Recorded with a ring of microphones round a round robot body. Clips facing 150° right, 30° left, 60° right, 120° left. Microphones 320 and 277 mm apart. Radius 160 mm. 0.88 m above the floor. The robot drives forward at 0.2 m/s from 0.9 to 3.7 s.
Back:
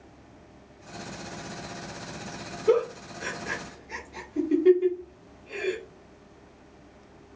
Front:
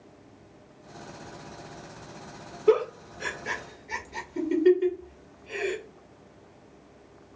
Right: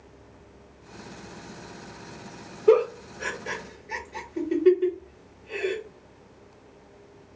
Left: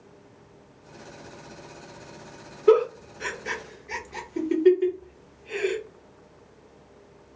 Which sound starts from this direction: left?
A giggle, at 2.7 s.